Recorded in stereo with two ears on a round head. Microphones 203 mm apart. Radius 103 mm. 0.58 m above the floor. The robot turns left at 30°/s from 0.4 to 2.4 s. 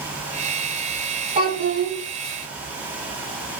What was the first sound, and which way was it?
A child speaking, 30° right (ahead or behind).